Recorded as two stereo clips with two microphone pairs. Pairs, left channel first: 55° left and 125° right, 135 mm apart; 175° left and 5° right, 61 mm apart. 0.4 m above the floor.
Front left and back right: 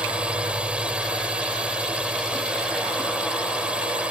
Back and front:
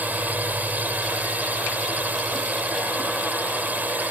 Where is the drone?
50° right.